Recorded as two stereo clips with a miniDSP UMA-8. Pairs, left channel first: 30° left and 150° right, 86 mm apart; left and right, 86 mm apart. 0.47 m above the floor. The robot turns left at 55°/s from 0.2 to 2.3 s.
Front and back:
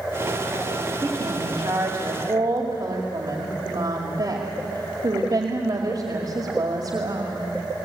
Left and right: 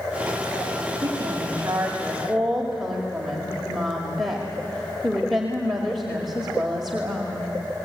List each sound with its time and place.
1.0 s a woman speaking: 110° right, 2 m; by 7.5 s straight behind, 2 m